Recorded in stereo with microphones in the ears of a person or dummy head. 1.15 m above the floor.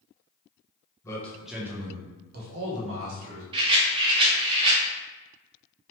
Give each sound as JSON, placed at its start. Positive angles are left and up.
{"t": 1.0, "sound": "a man speaking", "side_deg": 10, "distance_m": 0.9}
{"t": 3.5, "sound": "a rattle", "side_deg": -30, "distance_m": 0.6}